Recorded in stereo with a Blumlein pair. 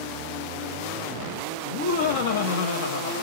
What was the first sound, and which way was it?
Laughter, 60° left.